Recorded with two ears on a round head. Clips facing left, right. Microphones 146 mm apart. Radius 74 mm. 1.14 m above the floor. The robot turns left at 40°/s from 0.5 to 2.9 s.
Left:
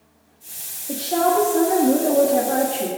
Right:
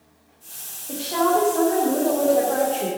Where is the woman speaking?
155° left, 1.7 m; by 2.9 s 80° left, 1.7 m.